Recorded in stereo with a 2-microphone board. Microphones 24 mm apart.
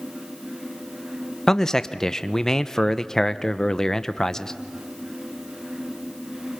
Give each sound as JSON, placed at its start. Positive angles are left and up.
{"t": 1.5, "sound": "a man speaking", "side_deg": 15, "distance_m": 0.7}